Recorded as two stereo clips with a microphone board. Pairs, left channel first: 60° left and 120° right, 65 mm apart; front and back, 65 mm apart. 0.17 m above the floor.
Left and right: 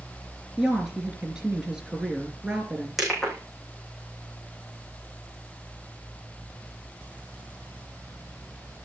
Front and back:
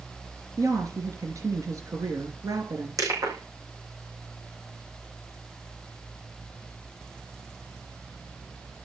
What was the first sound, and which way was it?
A woman speaking, 160° left.